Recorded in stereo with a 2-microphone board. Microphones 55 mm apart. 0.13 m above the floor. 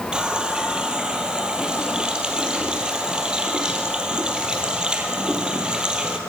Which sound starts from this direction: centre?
A running tap, at 0.1 s.